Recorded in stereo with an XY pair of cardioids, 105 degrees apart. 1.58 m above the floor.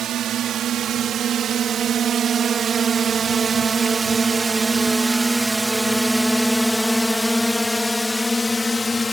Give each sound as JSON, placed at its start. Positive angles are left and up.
{"t": 0.0, "sound": "a drone", "azimuth_deg": -65}